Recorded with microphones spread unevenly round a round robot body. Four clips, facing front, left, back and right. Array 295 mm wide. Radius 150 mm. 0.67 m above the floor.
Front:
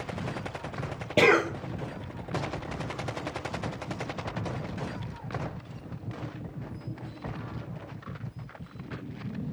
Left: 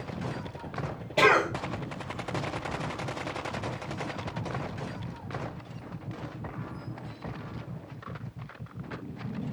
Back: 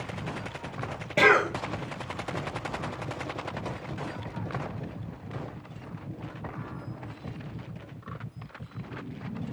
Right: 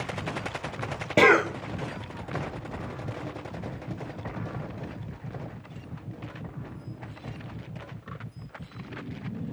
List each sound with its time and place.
1.2 s a cough: 70° right, 1.6 m